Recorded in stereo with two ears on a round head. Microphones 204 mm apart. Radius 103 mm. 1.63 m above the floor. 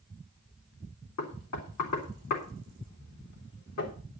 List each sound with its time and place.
1.2 s knocking: 80° left, 3.5 m